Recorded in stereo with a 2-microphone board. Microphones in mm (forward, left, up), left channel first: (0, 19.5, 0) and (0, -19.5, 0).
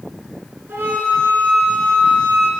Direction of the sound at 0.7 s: 70° right (ahead or behind).